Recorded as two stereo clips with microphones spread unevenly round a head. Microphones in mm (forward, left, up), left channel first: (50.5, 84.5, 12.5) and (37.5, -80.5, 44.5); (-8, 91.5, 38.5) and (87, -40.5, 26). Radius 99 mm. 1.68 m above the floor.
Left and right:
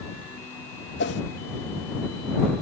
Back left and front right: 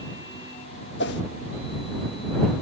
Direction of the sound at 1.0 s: 125° left.